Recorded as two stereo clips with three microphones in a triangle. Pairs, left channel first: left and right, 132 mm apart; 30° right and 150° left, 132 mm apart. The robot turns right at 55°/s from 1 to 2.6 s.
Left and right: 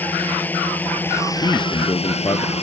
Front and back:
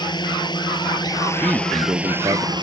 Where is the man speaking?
70° left; by 2.5 s 130° left.